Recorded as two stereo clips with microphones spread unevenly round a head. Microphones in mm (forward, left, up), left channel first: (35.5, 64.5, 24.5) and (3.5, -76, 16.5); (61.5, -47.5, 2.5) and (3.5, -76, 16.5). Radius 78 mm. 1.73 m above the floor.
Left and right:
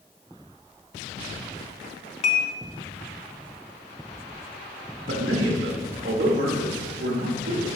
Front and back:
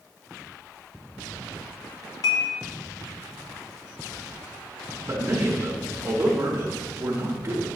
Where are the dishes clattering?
60° left, 1.1 m.